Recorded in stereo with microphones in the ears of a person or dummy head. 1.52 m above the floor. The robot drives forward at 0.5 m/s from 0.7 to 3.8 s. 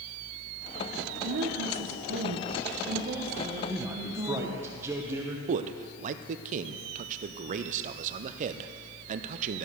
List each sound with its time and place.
1.2 s a woman speaking: 65° right (ahead or behind), 0.7 m; by 4.6 s 30° right (ahead or behind), 1.3 m
3.7 s a man speaking: 15° right (ahead or behind), 0.8 m
5.5 s a man speaking: 45° right (ahead or behind), 0.5 m